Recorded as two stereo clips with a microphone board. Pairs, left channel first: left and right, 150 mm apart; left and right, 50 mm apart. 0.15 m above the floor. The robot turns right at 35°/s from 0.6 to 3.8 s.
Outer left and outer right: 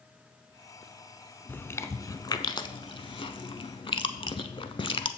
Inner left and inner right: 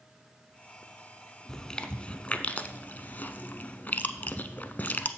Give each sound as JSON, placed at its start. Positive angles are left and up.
{"t": 1.5, "sound": "chewing", "side_deg": 15, "distance_m": 0.5}